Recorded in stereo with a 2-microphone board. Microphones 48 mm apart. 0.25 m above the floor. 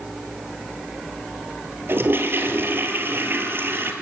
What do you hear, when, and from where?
1.9 s a toilet flushing: 55° right (ahead or behind), 1.9 m